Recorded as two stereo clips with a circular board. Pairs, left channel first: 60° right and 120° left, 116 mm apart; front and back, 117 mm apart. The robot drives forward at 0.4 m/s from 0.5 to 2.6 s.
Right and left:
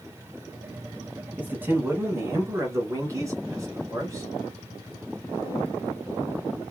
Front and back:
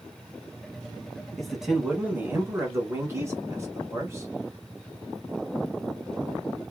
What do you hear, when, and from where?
1.4 s a man speaking: 80° left, 1.0 m; by 4.3 s 145° left, 1.1 m